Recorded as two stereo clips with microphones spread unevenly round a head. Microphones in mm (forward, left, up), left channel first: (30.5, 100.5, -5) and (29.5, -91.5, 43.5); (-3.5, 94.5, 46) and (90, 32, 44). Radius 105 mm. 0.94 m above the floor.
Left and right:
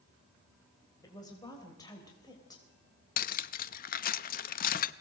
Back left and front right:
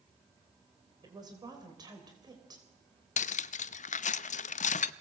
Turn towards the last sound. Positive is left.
turn(degrees=140)